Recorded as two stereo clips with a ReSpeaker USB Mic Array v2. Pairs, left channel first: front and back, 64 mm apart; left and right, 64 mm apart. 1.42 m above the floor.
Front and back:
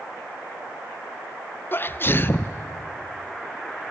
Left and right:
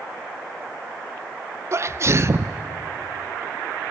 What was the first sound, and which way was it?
A sneeze, 50° right.